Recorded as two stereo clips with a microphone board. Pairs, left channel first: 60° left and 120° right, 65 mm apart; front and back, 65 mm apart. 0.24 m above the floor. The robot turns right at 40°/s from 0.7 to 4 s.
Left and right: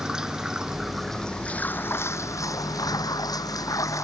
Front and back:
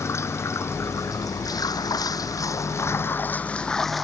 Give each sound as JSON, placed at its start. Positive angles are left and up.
{"t": 0.0, "sound": "running water", "azimuth_deg": -40}